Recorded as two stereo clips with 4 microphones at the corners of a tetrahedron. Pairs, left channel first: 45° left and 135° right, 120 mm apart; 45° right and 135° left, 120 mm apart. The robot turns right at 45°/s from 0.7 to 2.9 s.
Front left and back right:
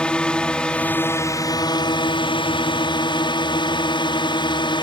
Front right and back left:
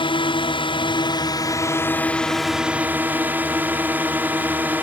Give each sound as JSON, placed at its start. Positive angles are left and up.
{"t": 0.0, "sound": "a drone", "azimuth_deg": -35}